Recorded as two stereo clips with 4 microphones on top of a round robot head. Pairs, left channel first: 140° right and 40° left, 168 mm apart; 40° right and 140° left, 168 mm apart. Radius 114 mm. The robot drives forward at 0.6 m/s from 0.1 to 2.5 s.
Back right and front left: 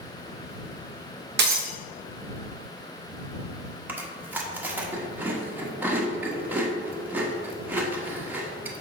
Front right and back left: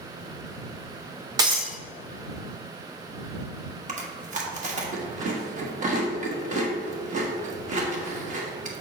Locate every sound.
1.4 s breaking glass: 70° left, 0.7 m; by 1.8 s 90° left, 0.6 m
3.9 s chewing: 120° left, 1.4 m